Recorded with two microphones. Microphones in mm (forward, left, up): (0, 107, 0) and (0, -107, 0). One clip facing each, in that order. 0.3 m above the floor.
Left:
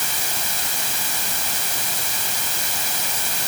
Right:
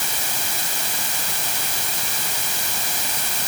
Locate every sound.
Only background noise.